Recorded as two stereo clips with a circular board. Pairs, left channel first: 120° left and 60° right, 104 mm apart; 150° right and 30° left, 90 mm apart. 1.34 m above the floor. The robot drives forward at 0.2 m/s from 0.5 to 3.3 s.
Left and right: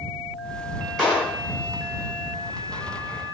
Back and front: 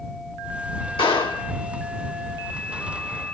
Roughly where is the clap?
Behind right.